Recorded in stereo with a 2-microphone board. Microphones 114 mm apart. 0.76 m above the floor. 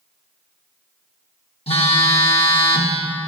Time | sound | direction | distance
1.7 | a phone buzzing | 60° left (ahead or behind) | 1.0 m